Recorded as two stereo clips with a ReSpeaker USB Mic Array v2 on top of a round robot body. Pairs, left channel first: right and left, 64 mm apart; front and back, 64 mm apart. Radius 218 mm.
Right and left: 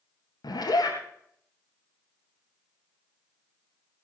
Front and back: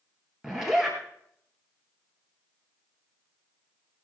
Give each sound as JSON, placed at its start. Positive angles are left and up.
{"t": 0.4, "sound": "a zipper", "azimuth_deg": -95, "distance_m": 2.0}